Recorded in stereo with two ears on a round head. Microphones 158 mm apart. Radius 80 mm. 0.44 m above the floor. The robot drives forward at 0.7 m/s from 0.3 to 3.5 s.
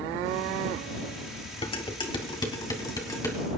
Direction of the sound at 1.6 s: 30° left (ahead or behind).